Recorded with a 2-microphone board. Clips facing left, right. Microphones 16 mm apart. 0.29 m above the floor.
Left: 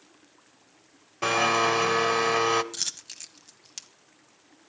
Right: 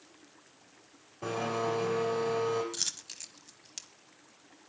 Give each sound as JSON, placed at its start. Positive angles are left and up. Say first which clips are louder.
{"t": 1.2, "sound": "a blender", "louder": "left 10 dB", "side_deg": 65, "distance_m": 1.0}
{"t": 2.7, "sound": "a dropped coin", "louder": "left 3 dB", "side_deg": 5, "distance_m": 0.7}